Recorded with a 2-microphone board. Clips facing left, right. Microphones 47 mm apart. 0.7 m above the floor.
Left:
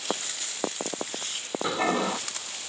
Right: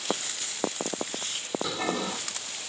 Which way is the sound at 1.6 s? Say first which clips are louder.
Left 7 dB; 25° left (ahead or behind).